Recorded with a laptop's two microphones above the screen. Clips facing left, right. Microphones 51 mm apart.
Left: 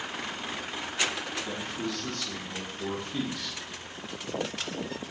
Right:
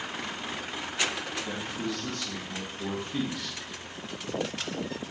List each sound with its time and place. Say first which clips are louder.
1.4 s a man speaking: even; 10° right (ahead or behind), 0.9 m